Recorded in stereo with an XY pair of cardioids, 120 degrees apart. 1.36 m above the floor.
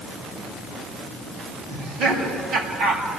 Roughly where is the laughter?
Ahead right.